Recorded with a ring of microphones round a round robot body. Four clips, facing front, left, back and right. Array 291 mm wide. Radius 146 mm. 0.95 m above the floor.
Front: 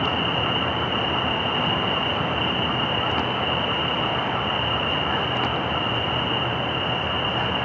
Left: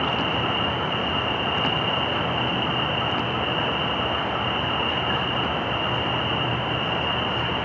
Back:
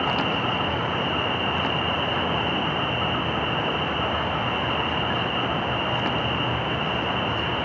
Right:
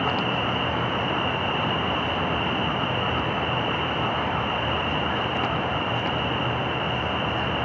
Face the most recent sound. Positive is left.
turn(degrees=135)